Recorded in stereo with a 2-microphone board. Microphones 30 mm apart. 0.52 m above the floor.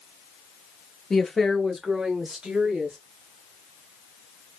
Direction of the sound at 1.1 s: 25° left (ahead or behind).